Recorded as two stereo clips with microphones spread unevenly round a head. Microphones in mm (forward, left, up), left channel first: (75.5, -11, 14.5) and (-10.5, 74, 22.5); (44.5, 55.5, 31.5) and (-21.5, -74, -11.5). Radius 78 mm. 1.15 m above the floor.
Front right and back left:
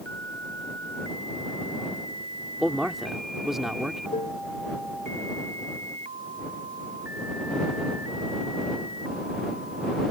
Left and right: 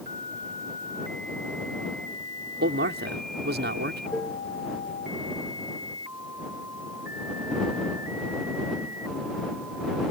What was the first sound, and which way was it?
A man speaking, 140° right.